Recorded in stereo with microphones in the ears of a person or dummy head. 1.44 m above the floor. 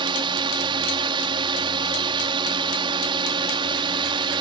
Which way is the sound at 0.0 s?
30° right (ahead or behind).